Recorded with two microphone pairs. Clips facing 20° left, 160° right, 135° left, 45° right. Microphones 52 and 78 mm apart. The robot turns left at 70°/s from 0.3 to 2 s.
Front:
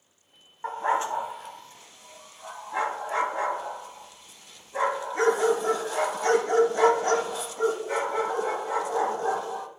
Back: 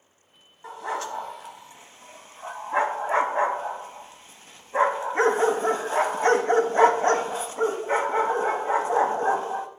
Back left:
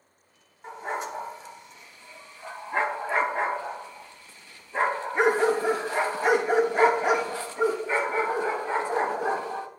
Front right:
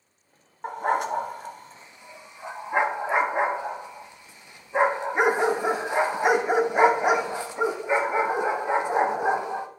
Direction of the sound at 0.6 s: 20° right.